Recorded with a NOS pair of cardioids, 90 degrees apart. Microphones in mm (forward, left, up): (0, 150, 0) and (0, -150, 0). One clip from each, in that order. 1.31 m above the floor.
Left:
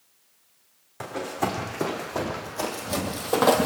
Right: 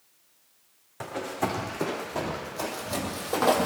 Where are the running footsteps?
15° left, 4.5 m; by 3.7 s 40° left, 2 m.